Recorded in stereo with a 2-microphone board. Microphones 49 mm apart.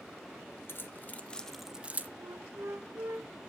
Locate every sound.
0.7 s keys jangling: 50° left (ahead or behind), 0.8 m; by 2.1 s 35° right (ahead or behind), 0.5 m
2.2 s a flute: 80° right, 0.7 m